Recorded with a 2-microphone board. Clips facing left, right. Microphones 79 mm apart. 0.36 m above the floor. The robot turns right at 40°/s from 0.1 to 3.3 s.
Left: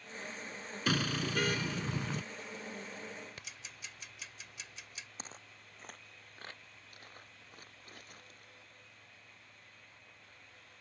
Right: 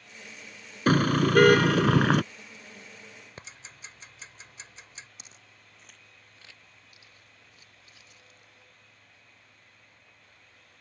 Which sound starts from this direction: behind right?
A car horn, at 0.9 s.